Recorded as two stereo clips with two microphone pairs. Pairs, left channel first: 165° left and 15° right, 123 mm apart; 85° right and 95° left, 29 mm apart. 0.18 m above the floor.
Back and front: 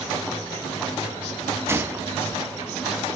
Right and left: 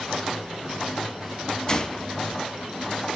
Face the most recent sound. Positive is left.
turn(degrees=-60)